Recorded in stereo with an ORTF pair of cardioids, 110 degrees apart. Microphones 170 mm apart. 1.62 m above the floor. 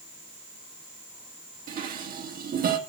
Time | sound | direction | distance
1.7 | dishes clattering | 60° right | 2 m